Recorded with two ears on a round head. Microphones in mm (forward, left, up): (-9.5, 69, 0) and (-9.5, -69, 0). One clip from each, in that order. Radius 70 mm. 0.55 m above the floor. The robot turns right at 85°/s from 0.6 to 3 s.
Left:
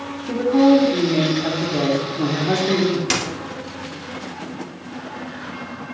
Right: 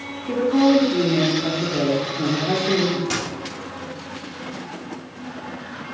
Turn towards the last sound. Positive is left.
turn(degrees=55)  # may be behind; listen again after turning